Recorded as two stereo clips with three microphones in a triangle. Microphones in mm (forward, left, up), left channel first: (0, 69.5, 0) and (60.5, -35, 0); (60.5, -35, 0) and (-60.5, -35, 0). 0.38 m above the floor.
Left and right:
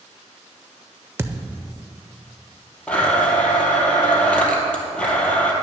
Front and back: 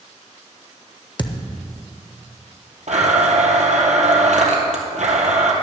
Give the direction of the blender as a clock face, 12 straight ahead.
5 o'clock.